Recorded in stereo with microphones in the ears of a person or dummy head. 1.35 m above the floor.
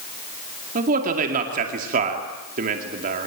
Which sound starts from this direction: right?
A man speaking, at 0.8 s.